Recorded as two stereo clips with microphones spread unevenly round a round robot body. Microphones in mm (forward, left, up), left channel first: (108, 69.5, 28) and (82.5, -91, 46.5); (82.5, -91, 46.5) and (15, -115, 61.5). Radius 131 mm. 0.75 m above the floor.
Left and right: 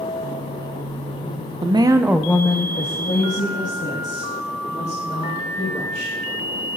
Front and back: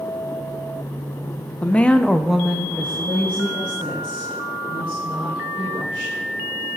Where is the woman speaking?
40° right, 0.7 m; by 6.2 s 130° left, 3 m.